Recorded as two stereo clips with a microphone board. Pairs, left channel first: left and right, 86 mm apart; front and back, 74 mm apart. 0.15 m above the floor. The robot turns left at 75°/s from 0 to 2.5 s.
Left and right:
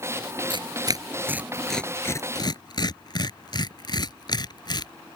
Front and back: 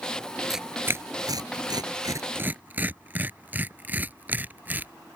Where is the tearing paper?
95° right; by 4.9 s 115° left.